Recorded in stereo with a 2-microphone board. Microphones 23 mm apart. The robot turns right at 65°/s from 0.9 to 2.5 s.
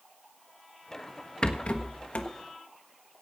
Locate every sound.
1.4 s a rattle: 45° left (ahead or behind), 1.3 m; by 2.3 s 55° left (ahead or behind), 1.3 m